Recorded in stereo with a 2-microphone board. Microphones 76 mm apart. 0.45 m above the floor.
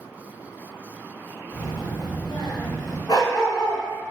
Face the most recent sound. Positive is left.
turn(degrees=55)  # may be behind; listen again after turning